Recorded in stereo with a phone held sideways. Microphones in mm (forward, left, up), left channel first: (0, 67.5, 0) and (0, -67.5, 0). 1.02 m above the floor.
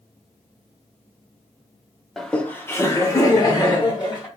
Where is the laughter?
Centre (ahead or behind), 0.5 m; by 4.3 s 35° left (ahead or behind), 1.5 m.